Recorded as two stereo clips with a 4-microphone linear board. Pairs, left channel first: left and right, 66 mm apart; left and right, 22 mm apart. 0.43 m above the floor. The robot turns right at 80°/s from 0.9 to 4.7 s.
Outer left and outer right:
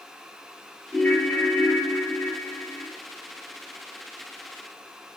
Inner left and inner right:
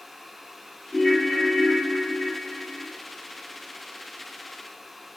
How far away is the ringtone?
About 0.9 m.